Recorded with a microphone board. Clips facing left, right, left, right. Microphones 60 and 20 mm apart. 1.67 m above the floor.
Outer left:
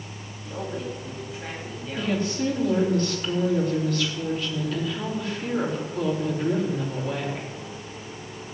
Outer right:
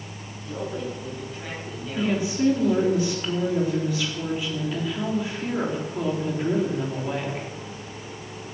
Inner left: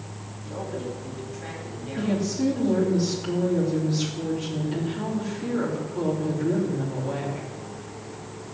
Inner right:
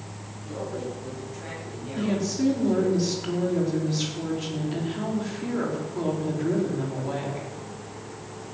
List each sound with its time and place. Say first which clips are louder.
0.4 s a man speaking: outer right 1 dB, even; 10° left (ahead or behind), 9 m
2.0 s a woman speaking: outer right 2 dB, even; 10° right (ahead or behind), 4.5 m